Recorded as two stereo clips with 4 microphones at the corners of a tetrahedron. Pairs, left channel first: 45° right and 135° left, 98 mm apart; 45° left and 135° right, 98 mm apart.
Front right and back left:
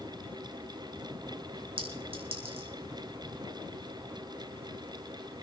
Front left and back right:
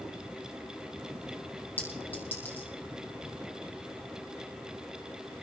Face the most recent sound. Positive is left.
turn(degrees=115)